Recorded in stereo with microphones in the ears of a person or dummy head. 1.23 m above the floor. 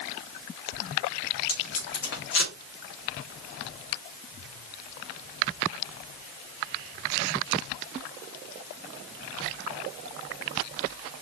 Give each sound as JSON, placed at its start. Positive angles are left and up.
{"t": 1.5, "sound": "tape being pulled", "side_deg": 65, "distance_m": 2.0}